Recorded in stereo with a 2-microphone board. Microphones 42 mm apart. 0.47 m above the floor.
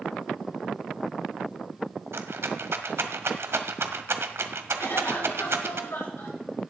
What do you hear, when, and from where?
2.1 s a rattle: 80° right, 0.9 m
4.8 s a cough: 80° left, 6 m